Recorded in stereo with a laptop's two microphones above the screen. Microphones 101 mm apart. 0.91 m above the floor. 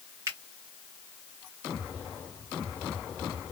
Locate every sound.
0.3 s a finger snap: 30° right (ahead or behind), 1.2 m